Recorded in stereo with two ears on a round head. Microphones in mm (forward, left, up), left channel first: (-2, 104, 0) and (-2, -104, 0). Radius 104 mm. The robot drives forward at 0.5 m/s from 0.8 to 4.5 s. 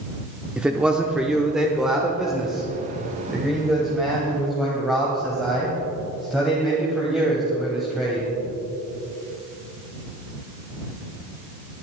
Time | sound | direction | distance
0.6 | a man speaking | 5° right (ahead or behind) | 0.8 m